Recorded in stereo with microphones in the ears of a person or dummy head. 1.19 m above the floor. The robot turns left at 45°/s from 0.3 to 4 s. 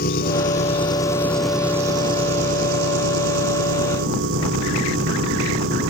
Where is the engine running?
55° left; by 5.9 s 110° right.